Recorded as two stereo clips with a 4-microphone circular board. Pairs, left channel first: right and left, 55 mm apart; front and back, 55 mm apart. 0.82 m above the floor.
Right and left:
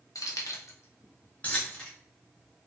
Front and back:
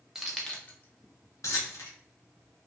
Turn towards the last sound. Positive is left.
turn(degrees=-15)